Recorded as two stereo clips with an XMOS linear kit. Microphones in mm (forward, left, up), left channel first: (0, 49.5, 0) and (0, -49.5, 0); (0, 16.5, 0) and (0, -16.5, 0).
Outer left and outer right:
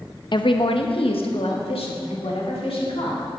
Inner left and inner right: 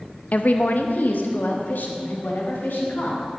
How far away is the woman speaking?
About 0.6 m.